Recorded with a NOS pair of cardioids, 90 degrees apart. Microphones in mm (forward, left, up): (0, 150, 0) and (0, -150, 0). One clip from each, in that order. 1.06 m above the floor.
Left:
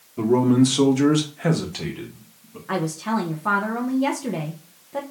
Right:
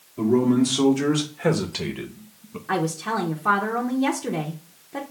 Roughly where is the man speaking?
Ahead left.